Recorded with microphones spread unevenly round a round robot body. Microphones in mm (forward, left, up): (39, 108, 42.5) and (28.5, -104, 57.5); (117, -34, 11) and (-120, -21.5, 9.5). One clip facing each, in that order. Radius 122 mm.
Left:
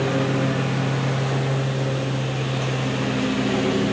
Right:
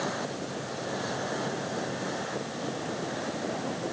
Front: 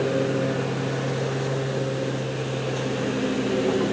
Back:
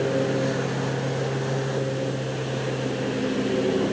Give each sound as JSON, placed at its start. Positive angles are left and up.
{"t": 0.0, "sound": "a lawn mower", "azimuth_deg": 85}